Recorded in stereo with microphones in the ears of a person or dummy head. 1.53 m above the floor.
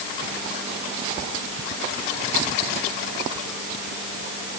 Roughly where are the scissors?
No scissors in this recording.